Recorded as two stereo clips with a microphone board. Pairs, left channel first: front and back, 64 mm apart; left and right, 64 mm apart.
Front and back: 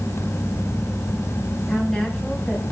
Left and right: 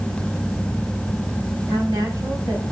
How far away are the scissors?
I don't hear scissors.